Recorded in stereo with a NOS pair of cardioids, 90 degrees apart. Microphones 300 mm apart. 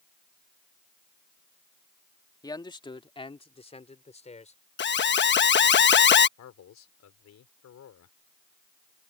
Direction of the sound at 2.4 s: 15° left.